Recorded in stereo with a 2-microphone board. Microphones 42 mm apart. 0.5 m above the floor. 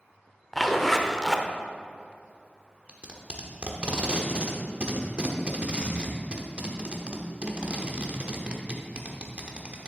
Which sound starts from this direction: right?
Tape being pulled, at 2.9 s.